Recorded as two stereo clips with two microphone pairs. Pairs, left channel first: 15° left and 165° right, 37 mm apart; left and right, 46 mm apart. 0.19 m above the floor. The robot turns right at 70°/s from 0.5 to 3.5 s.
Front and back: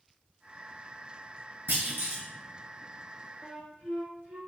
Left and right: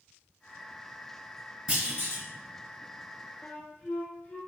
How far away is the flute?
About 1.0 m.